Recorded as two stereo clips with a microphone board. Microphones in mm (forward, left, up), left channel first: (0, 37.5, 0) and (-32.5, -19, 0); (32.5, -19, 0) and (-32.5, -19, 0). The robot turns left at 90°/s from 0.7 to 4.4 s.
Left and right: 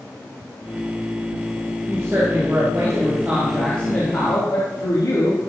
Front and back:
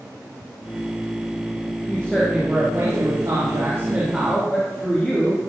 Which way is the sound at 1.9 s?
55° right.